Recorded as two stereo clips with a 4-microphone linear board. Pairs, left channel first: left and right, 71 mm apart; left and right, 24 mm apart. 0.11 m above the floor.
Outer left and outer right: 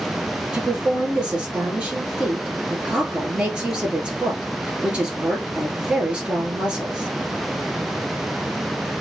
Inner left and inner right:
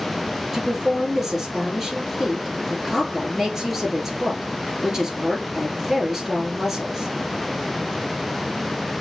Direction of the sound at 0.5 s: 15° right (ahead or behind).